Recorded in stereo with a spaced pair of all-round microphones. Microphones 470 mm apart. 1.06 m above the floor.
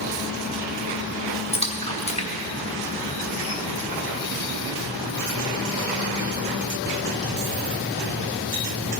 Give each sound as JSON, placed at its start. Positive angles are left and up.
{"t": 1.5, "sound": "a splash", "side_deg": 15, "distance_m": 1.2}